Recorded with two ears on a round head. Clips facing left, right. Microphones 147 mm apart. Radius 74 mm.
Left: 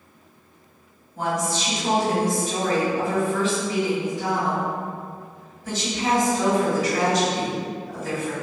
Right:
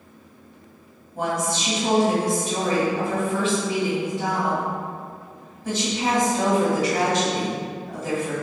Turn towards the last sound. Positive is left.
turn(degrees=-50)  # may be behind; listen again after turning